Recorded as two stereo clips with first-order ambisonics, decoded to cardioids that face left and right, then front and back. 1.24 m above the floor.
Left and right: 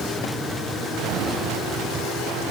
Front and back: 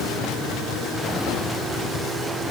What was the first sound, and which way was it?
Only background noise.